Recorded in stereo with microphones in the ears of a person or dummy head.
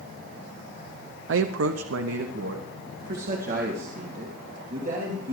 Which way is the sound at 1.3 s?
70° right (ahead or behind).